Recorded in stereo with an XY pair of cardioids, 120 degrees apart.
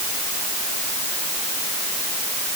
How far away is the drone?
I don't hear a drone.